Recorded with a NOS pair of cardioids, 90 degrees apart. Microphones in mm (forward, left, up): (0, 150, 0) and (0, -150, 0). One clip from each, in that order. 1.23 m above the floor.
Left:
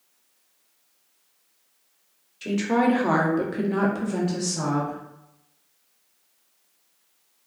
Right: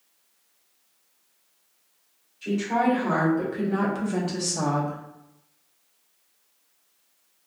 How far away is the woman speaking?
About 1.0 m.